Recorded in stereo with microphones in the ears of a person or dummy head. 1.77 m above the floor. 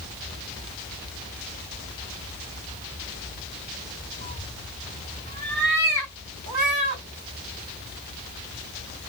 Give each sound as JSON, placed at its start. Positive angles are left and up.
{"t": 4.2, "sound": "a cat meowing", "side_deg": -35, "distance_m": 3.0}